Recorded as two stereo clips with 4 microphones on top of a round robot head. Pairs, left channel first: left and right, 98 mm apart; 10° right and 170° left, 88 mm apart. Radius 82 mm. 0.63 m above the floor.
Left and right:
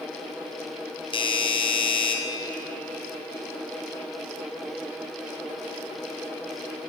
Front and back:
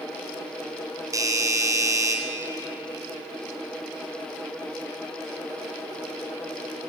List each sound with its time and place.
1.1 s a doorbell: 120° left, 3.5 m